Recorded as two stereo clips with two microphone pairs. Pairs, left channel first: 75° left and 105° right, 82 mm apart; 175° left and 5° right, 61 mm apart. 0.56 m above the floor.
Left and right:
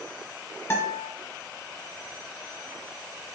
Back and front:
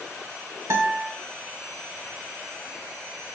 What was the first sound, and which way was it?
A guitar, 20° left.